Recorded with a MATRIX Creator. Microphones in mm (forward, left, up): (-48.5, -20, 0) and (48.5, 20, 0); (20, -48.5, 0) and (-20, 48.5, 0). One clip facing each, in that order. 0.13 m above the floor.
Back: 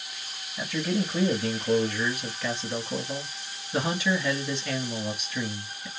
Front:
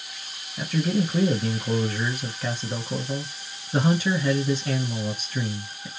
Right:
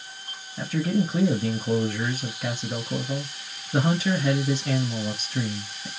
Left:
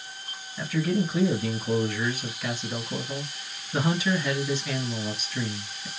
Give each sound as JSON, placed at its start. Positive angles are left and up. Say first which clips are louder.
{"t": 0.6, "sound": "a man speaking", "louder": "front 4 dB, right 1 dB", "azimuth_deg": -20, "distance_m": 2.0}